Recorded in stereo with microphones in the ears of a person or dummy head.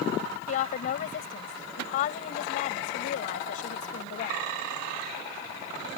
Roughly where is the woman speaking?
Left.